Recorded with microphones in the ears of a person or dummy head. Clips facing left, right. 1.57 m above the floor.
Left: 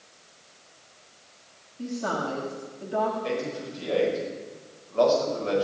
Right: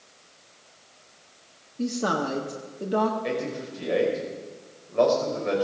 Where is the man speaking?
20° right (ahead or behind), 5.5 m.